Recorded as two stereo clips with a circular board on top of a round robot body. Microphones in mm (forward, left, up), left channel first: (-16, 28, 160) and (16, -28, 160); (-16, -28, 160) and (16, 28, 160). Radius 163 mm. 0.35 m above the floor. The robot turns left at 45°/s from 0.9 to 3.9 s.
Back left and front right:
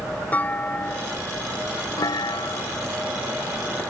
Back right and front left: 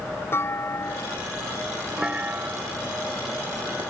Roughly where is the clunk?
Behind.